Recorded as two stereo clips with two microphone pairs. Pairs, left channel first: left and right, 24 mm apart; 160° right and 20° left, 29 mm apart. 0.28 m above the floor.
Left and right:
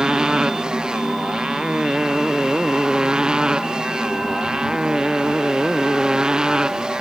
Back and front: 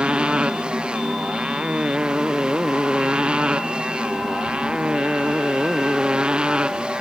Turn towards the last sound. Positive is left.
turn(degrees=-30)